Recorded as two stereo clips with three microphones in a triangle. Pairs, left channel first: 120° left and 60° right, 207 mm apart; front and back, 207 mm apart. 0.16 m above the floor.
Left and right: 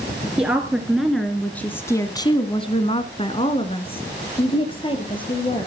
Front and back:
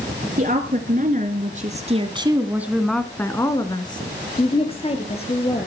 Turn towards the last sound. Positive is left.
turn(degrees=55)